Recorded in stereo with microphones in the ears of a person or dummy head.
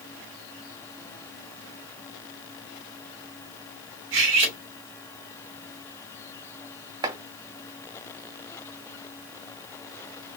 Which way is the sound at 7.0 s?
20° right (ahead or behind).